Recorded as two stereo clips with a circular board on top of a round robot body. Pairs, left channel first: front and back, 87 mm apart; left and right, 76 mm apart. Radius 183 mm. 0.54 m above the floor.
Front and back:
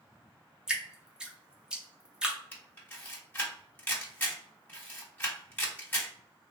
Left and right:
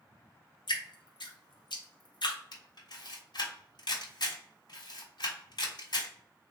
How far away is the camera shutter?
About 1.5 m.